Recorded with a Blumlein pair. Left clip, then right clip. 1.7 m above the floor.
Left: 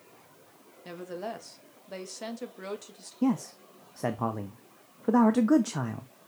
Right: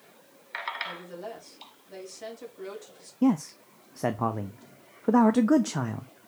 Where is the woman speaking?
20° left, 1.7 m.